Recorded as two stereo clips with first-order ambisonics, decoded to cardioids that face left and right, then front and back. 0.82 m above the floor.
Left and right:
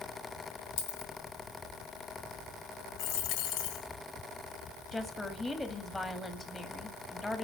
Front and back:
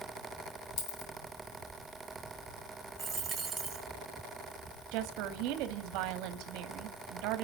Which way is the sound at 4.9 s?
170° left.